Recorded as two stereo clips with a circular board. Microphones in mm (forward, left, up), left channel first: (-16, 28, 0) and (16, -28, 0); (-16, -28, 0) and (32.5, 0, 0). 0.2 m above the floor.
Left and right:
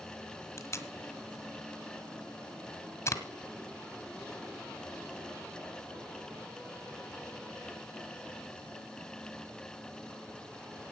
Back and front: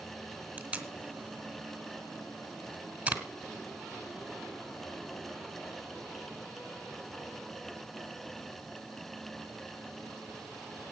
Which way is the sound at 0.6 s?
95° left.